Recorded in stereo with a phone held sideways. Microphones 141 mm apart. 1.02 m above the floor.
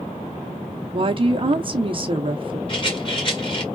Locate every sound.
0.9 s a woman speaking: 40° right (ahead or behind), 0.8 m
2.7 s a rattle: 40° left (ahead or behind), 1.8 m